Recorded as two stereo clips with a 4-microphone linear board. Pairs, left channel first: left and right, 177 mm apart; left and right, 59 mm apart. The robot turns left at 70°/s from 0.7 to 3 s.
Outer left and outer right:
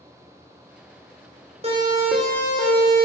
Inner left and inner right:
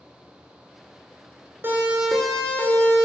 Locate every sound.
1.6 s a siren: 40° right (ahead or behind), 5 m; by 3.0 s 50° left (ahead or behind), 4 m